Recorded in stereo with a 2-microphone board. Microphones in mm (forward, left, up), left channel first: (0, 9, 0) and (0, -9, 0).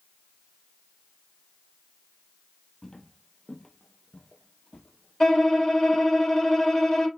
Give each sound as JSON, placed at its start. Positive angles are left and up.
{"t": 2.8, "sound": "footsteps", "side_deg": 25, "distance_m": 1.4}
{"t": 5.2, "sound": "a violin", "side_deg": 35, "distance_m": 1.5}